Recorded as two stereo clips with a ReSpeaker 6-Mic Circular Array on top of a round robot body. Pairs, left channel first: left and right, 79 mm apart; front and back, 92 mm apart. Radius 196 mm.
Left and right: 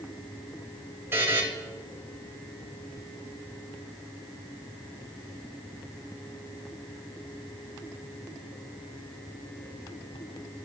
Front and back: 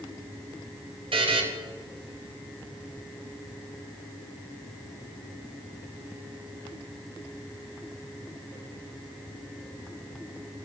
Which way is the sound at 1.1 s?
155° right.